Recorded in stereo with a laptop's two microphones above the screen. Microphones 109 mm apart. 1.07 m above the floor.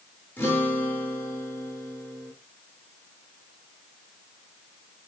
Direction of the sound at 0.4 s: 15° left (ahead or behind).